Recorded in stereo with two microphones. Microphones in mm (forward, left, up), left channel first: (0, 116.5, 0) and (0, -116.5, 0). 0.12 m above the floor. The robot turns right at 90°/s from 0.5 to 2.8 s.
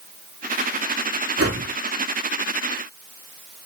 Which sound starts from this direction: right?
A whoosh, at 1.4 s.